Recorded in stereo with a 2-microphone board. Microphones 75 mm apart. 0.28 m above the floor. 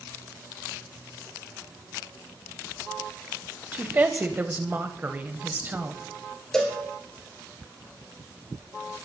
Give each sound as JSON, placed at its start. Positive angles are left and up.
{"t": 3.7, "sound": "a woman speaking", "side_deg": -25, "distance_m": 1.2}
{"t": 6.5, "sound": "a cowbell", "side_deg": 10, "distance_m": 2.5}